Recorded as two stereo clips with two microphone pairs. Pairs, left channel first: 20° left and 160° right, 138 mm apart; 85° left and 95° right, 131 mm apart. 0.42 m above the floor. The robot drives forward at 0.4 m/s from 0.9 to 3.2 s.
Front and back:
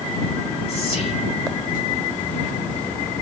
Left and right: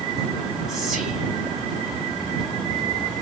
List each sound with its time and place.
0.7 s whispering: 10° right, 1.4 m